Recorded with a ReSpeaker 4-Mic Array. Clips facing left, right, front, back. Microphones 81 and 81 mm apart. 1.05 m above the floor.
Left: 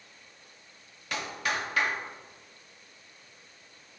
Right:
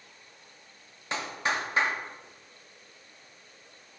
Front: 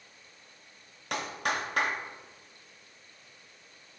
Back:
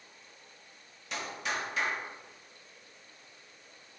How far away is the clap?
About 1.1 m.